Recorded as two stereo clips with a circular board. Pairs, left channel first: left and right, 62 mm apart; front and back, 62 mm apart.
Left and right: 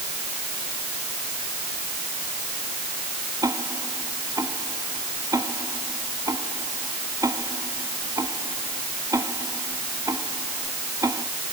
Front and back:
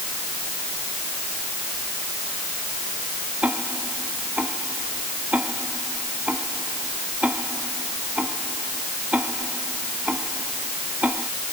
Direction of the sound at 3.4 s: 115° right.